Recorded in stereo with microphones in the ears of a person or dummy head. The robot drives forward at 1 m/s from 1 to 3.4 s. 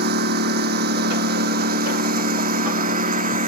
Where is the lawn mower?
55° right (ahead or behind); by 3.5 s 45° right (ahead or behind).